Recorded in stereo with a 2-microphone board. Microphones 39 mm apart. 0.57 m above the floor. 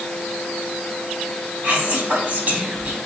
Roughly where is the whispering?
Right.